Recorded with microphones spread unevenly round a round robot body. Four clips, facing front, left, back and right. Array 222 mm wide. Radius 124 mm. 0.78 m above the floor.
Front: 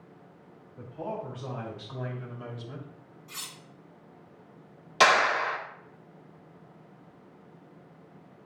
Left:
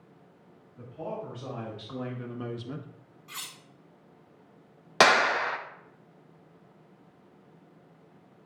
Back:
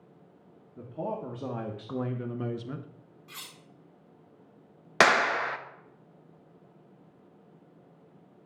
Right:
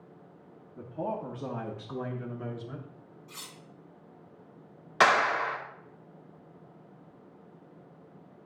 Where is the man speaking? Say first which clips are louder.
Right 3 dB, back 1 dB; 140° right, 1.3 m; by 2.9 s 130° left, 0.8 m.